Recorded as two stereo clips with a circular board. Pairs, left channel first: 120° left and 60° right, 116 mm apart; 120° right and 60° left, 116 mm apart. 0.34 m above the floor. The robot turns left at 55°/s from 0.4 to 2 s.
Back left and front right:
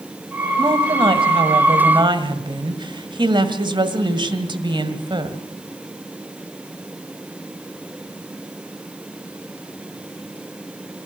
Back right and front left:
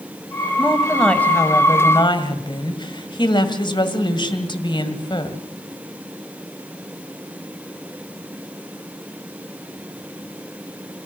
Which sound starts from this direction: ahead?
A woman speaking, at 0.6 s.